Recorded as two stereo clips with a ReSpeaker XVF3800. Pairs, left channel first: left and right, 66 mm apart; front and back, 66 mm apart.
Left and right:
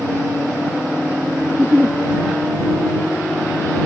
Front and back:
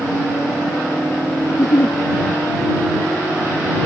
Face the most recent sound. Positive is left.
turn(degrees=-15)